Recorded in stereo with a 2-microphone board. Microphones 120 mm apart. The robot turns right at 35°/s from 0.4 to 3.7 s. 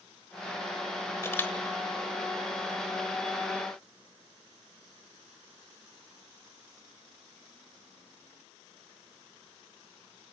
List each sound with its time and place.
1.2 s a camera shutter: 25° left (ahead or behind), 1.4 m; by 1.5 s 20° left (ahead or behind), 1.4 m